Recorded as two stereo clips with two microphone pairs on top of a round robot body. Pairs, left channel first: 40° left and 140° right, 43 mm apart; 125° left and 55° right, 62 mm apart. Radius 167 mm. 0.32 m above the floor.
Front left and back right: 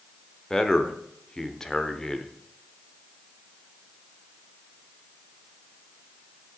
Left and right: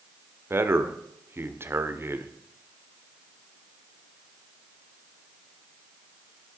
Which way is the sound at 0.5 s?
30° right.